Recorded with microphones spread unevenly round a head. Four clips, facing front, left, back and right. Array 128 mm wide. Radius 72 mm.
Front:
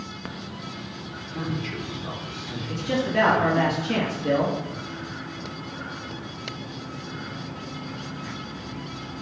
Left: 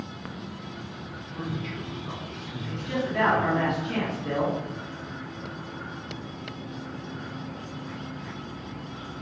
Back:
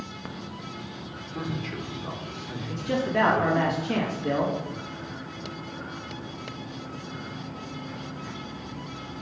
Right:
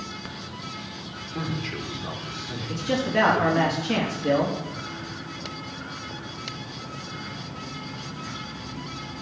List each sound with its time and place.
1.3 s a man speaking: 95° right, 3.5 m; by 3.7 s 85° right, 5 m
2.7 s a man speaking: 75° right, 3 m